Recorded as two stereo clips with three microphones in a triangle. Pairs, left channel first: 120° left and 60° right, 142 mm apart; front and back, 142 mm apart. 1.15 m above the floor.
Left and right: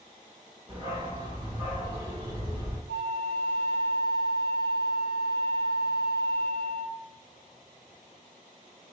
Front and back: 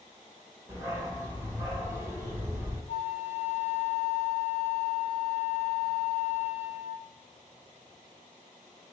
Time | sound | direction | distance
0.7 | a dog barking | 110° right | 1.5 m
2.9 | a flute | 40° right | 1.4 m